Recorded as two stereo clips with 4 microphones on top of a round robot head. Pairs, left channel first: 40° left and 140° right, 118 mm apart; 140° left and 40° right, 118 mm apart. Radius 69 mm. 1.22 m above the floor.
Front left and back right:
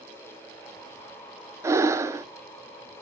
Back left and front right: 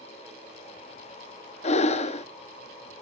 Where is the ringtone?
No ringtone in this recording.